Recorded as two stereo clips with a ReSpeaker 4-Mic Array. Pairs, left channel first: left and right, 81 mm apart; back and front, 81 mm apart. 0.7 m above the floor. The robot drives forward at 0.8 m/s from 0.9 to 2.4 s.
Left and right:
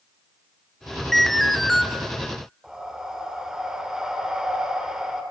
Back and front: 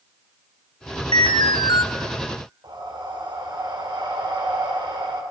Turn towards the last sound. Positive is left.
turn(degrees=-10)